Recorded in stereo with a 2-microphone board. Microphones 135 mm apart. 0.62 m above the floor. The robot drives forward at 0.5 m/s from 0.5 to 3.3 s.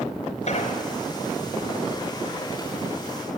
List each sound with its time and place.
0.5 s an explosion: 55° left (ahead or behind), 1.3 m; by 0.8 s 50° left (ahead or behind), 1.4 m